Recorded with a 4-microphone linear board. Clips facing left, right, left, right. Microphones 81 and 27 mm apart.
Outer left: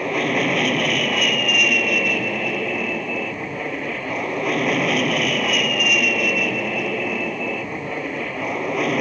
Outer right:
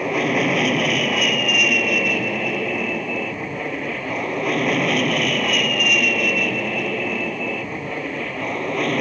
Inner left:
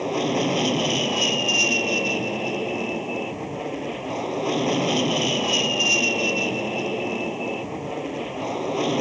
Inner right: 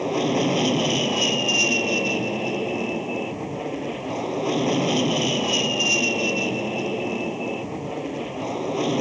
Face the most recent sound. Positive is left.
turn(degrees=5)  # may be behind; listen again after turning